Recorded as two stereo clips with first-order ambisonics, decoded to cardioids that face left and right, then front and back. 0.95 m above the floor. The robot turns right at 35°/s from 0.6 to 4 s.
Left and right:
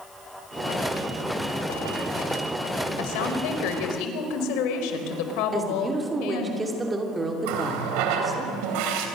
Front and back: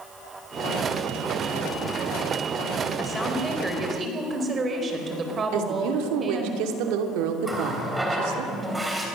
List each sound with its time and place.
3.0 s a woman speaking: 80° left, 4 m; by 6.5 s 115° left, 4 m
5.5 s a woman speaking: 170° right, 3 m
7.4 s a running tap: 100° right, 3.5 m